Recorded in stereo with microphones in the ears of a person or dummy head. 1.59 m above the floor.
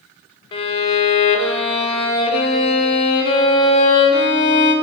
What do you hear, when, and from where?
0.5 s a violin: 25° left (ahead or behind), 1.1 m